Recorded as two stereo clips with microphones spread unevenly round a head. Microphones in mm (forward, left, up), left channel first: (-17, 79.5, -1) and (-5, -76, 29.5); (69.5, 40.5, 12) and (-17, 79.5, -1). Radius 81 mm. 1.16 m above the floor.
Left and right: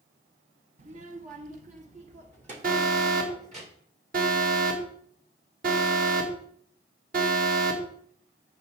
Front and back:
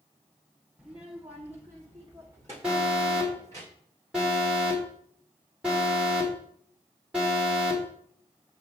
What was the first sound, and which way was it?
A child speaking, 115° right.